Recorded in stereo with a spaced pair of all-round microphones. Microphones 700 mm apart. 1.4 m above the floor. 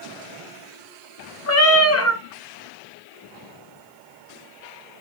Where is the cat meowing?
25° left (ahead or behind), 0.6 m.